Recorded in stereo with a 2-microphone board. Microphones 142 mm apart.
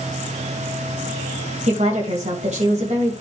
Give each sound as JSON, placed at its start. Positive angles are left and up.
{"t": 1.7, "sound": "a woman speaking", "side_deg": -55, "distance_m": 2.0}